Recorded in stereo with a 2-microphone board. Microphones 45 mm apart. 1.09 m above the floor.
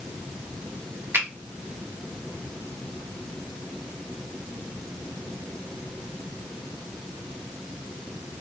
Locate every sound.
1.1 s a finger snap: 50° right (ahead or behind), 1.5 m